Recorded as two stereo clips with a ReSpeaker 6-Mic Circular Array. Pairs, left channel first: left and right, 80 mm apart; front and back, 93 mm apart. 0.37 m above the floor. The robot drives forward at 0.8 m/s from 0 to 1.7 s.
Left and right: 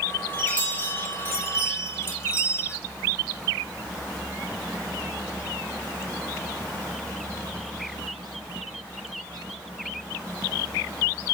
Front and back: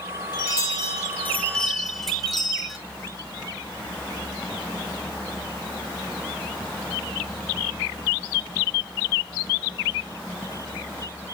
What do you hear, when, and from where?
0.3 s a chime: 25° left, 1.5 m; by 2.8 s 85° left, 1.0 m